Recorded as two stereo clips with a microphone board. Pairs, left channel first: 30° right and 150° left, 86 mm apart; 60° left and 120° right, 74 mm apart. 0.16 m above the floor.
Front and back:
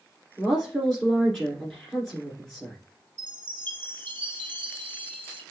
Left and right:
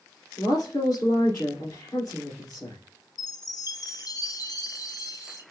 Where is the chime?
40° left, 1.4 m.